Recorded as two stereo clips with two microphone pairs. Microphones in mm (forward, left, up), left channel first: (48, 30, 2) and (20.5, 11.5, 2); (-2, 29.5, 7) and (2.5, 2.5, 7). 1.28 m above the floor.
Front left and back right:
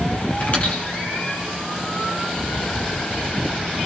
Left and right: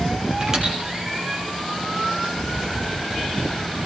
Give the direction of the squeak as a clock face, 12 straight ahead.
12 o'clock.